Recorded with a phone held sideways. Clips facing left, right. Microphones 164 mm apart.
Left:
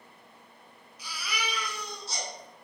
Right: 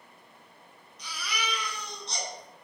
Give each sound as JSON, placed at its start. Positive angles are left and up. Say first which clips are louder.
{"t": 1.0, "sound": "a baby crying", "louder": "even", "side_deg": 5, "distance_m": 2.5}